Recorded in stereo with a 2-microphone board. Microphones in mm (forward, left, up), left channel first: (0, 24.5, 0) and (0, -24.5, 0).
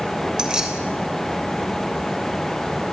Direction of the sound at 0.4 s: 20° right (ahead or behind).